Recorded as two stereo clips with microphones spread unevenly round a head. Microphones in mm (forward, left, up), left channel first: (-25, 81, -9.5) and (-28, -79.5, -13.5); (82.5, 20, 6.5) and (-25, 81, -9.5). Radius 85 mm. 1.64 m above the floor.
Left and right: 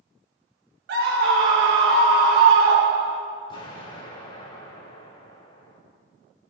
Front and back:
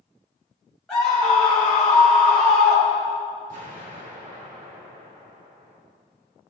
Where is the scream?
115° right, 1.4 m.